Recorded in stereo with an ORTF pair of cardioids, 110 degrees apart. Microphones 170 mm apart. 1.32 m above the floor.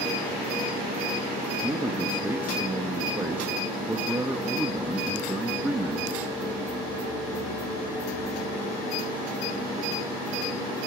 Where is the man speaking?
10° right, 1.6 m.